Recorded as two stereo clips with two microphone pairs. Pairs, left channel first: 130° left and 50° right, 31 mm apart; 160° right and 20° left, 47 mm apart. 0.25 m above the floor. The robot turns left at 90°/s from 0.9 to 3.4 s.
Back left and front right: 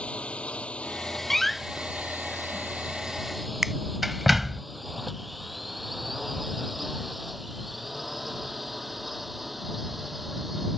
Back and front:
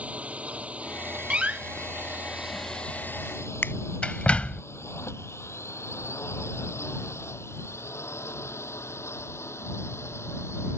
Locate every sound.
0.0 s a drone: 85° left; by 10.8 s 135° right
1.3 s a door slam: 65° left; by 4.6 s 125° right
3.6 s a finger snap: 125° right